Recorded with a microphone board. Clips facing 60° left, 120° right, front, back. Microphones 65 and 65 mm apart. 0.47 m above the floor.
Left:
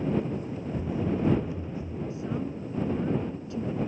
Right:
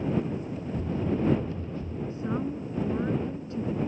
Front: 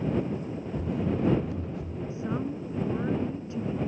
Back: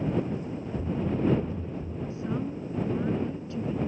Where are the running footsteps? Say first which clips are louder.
Even, even; 15° right.